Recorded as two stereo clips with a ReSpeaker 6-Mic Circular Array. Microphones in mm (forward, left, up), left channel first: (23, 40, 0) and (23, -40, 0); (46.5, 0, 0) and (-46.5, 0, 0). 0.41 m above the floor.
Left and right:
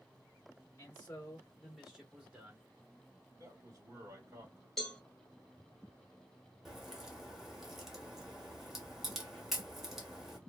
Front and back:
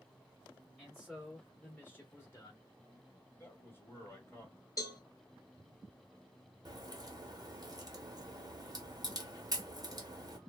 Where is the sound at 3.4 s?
55° right, 1.3 m.